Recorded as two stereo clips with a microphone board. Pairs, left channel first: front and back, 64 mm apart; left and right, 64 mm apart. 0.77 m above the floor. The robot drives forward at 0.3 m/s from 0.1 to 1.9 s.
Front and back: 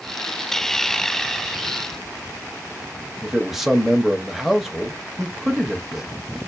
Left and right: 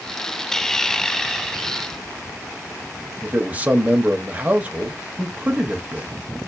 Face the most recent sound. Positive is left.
turn(degrees=-100)